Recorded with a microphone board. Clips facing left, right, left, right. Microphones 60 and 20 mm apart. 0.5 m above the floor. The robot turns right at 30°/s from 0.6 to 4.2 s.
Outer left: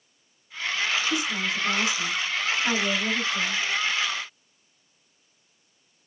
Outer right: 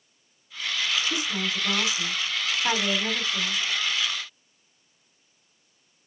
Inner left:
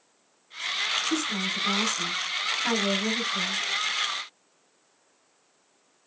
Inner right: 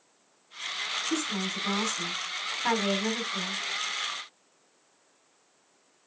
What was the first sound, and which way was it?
A woman speaking, 175° left.